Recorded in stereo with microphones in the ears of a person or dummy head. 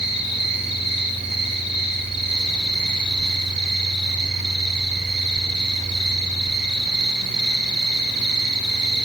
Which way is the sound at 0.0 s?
Centre (ahead or behind).